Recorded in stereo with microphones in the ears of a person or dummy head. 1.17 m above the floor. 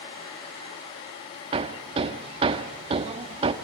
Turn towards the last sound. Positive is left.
turn(degrees=-35)  # may be behind; listen again after turning